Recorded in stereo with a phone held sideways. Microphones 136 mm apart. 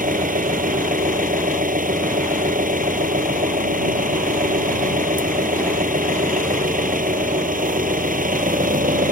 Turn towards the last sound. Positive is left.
turn(degrees=-80)